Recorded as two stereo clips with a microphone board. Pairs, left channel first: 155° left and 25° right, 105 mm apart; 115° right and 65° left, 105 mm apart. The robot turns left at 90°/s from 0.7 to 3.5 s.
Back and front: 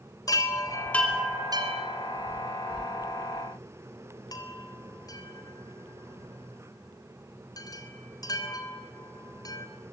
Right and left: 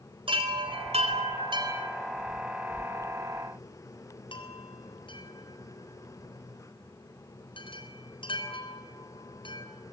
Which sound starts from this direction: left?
A chime, at 0.3 s.